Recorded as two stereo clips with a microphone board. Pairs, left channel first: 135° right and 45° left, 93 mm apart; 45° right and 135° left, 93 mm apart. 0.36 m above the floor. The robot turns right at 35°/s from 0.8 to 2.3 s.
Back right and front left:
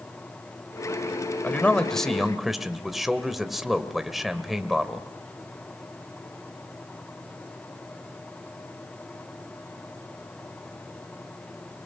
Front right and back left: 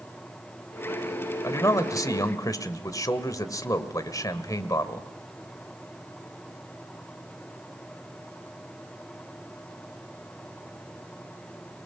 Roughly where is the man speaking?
Right.